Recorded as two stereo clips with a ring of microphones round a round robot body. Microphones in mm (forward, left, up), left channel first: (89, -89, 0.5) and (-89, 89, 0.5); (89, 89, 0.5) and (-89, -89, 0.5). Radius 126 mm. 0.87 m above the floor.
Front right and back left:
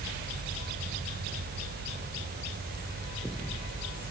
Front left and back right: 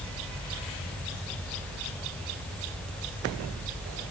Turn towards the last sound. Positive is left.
No sound to turn to.